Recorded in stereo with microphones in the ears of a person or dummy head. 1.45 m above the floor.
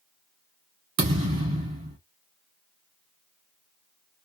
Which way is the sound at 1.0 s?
35° right (ahead or behind).